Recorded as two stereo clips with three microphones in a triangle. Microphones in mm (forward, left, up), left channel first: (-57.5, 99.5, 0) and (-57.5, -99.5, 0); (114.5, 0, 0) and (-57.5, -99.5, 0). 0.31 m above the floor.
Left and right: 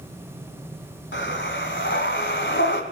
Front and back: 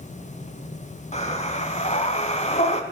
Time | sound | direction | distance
1.1 | breathing | 80° left | 1.4 m